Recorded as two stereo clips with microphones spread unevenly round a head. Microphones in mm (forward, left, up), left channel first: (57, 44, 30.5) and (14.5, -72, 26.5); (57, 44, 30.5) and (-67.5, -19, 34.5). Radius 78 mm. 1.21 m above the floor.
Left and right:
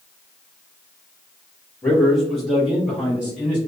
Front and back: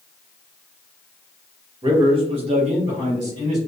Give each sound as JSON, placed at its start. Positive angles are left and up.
{"t": 1.8, "sound": "a man speaking", "azimuth_deg": 150, "distance_m": 0.6}